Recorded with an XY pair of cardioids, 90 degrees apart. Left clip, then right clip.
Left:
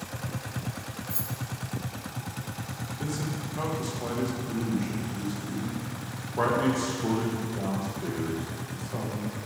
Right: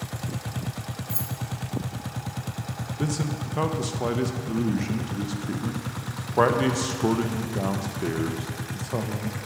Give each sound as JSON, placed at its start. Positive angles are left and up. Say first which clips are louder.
{"t": 1.1, "sound": "keys jangling", "louder": "right 2 dB", "azimuth_deg": -25, "distance_m": 1.0}
{"t": 3.0, "sound": "a man speaking", "louder": "right 5 dB", "azimuth_deg": -65, "distance_m": 0.7}